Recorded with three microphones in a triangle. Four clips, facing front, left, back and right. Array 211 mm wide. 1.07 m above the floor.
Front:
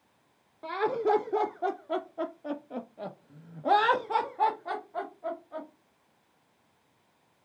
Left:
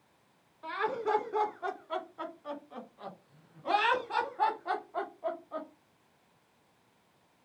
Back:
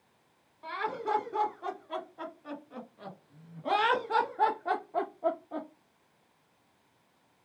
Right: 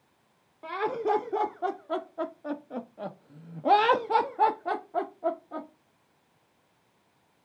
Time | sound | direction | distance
0.6 | laughter | 20° right | 3 m